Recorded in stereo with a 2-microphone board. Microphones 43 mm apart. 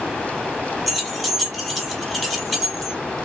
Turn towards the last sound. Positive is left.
turn(degrees=0)  # may be behind; listen again after turning